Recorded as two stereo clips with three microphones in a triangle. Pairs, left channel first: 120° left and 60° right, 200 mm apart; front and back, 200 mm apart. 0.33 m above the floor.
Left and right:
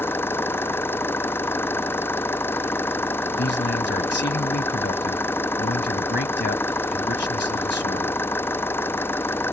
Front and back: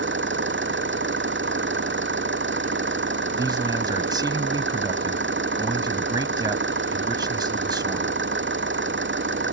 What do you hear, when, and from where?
0.0 s an engine running: 160° right
3.4 s a man speaking: 110° left